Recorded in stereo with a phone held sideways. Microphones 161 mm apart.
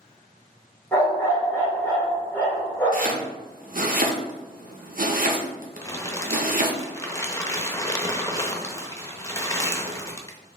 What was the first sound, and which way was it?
A dog barking, 10° left (ahead or behind).